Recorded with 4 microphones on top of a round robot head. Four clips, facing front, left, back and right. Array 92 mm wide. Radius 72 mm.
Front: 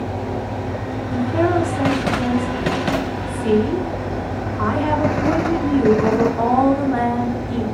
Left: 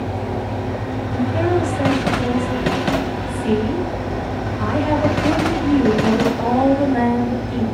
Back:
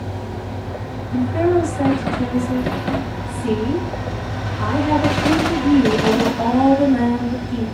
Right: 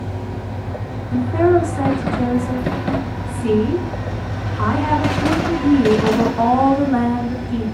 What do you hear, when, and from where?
1.1 s a woman speaking: 60° right, 5.5 m